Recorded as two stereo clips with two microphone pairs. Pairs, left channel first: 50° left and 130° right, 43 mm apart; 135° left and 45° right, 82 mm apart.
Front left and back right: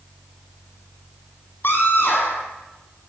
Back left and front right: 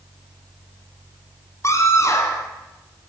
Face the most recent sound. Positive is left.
turn(degrees=80)